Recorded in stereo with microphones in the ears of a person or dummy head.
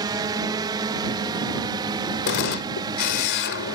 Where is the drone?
25° right (ahead or behind).